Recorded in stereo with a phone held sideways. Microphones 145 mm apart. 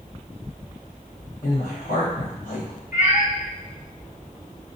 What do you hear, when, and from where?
1.4 s a woman speaking: 80° left, 0.9 m
2.9 s a cat meowing: 65° left (ahead or behind), 1.9 m